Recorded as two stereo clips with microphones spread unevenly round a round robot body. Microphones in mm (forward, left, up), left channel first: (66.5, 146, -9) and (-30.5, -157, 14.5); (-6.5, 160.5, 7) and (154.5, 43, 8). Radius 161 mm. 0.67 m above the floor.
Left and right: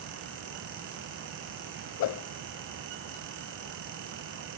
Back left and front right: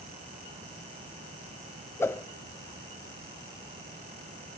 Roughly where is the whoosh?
Left.